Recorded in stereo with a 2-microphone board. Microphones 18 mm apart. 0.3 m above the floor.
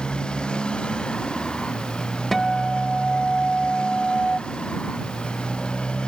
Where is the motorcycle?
60° left (ahead or behind); by 6.1 s 65° left (ahead or behind).